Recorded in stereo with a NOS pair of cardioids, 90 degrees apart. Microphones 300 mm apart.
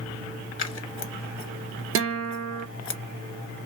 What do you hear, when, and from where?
0.6 s scissors: 45° left, 0.8 m
1.9 s a guitar: 50° right, 0.5 m